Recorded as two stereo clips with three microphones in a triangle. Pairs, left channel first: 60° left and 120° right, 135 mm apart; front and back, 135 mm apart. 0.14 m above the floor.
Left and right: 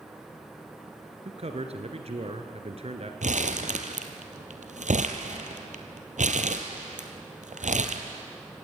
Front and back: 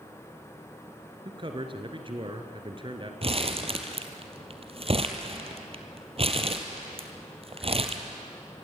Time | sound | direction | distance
1.2 | a man speaking | 140° right | 2 m
3.2 | crumpling | 140° right | 1.6 m